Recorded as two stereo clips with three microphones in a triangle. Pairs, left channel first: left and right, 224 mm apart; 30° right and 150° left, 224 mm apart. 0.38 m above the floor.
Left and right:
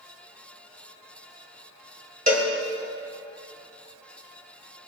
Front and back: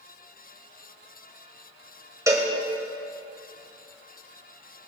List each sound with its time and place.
2.3 s a cowbell: 135° right, 2 m